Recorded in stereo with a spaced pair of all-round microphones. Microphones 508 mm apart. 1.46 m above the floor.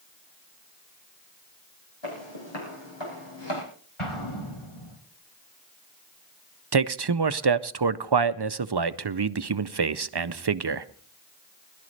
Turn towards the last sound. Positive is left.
turn(degrees=-55)  # may be behind; listen again after turning